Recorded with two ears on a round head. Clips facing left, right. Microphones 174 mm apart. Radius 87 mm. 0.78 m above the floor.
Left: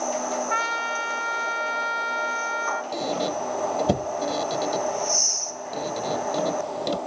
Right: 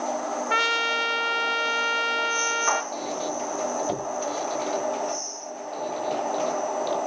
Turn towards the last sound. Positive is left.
turn(degrees=60)  # may be behind; listen again after turning